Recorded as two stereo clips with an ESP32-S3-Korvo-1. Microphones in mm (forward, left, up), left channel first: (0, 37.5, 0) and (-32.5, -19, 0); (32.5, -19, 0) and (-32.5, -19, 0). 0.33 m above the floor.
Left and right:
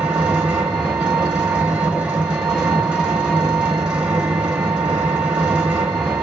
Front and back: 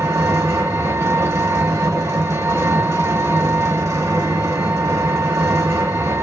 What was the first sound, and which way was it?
An engine running, 170° left.